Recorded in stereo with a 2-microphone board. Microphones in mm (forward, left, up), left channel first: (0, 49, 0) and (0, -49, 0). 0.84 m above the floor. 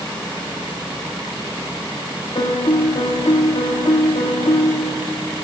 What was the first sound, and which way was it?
A piano, 70° left (ahead or behind).